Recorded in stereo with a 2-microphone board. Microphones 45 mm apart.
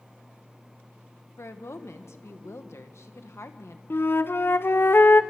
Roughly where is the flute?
Left.